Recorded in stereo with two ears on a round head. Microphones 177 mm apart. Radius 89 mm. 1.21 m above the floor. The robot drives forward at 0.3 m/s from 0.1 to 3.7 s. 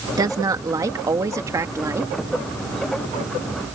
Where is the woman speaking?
20° right (ahead or behind); by 2.1 s 15° right (ahead or behind).